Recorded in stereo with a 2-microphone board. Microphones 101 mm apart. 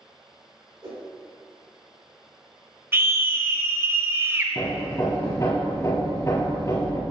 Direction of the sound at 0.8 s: 50° right (ahead or behind).